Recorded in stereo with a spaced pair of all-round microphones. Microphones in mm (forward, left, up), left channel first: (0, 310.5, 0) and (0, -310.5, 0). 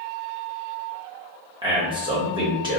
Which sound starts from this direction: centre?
A man speaking, at 1.6 s.